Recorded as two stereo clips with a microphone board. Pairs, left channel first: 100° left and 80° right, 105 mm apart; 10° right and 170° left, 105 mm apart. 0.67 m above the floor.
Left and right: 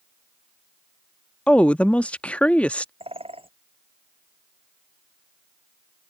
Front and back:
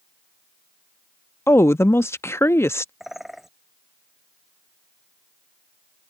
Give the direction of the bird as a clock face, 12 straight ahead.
3 o'clock.